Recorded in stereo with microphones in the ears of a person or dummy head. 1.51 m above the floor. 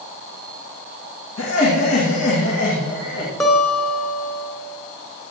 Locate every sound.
1.4 s laughter: 70° left (ahead or behind), 2.5 m
3.4 s a guitar: centre (ahead or behind), 1.0 m